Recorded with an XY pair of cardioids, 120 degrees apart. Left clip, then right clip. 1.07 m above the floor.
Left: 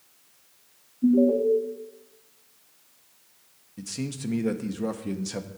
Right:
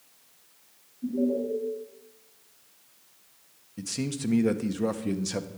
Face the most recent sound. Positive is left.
turn(degrees=-15)